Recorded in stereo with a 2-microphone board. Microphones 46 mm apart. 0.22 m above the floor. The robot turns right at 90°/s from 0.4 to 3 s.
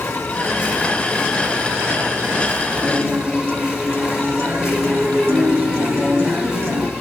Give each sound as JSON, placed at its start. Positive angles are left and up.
{"t": 0.0, "sound": "an insect", "azimuth_deg": 110, "distance_m": 5.0}
{"t": 2.8, "sound": "a guitar", "side_deg": -60, "distance_m": 2.0}